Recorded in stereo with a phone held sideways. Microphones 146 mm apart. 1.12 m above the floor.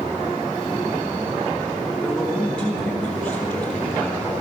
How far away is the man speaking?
About 4.5 m.